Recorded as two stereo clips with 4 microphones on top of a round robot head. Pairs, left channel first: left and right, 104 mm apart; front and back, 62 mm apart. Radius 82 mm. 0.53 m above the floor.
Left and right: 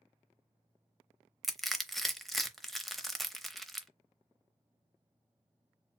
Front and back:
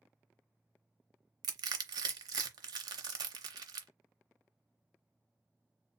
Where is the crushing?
Straight behind, 0.7 m.